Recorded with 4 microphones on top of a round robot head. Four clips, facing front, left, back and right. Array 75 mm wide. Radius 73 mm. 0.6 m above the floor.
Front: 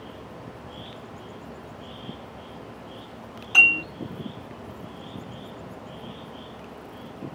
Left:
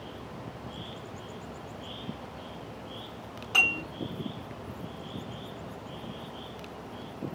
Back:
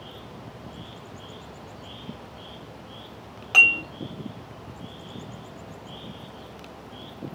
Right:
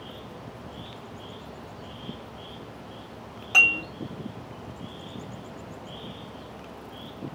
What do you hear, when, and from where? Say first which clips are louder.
3.5 s dishes clattering: right 5 dB, even; 165° right, 2.5 m